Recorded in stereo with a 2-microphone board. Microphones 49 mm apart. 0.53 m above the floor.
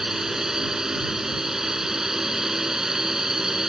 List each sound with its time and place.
0.0 s a drone: 10° right (ahead or behind)